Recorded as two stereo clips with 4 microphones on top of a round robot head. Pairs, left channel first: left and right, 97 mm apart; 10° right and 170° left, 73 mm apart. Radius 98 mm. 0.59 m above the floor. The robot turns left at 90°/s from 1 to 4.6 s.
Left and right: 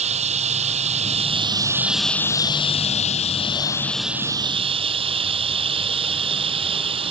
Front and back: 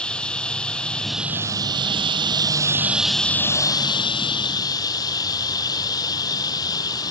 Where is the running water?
90° right; by 7.1 s 55° right.